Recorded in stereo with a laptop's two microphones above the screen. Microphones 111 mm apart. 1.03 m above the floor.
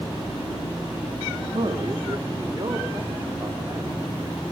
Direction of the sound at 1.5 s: 55° right (ahead or behind).